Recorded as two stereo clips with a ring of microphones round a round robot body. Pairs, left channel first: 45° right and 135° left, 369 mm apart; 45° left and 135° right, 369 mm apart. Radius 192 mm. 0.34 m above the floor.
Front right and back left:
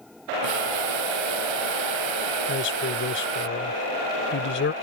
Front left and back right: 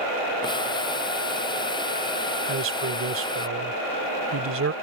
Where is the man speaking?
95° right.